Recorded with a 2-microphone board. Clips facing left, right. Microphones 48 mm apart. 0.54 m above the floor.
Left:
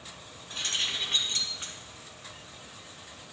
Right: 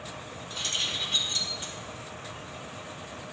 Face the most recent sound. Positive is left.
turn(degrees=45)  # may be behind; listen again after turning